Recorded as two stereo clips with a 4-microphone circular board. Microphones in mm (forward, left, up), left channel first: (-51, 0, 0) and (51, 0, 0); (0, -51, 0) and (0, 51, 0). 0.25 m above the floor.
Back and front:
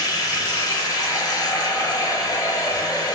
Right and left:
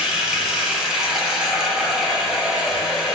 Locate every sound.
0.0 s running water: 175° left, 0.9 m